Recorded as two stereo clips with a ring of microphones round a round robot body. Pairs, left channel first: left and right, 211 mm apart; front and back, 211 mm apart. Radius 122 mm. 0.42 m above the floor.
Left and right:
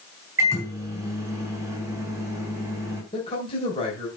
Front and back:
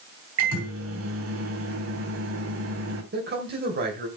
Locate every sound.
0.4 s a microwave: 170° right, 3 m
3.1 s a man speaking: 150° left, 2.5 m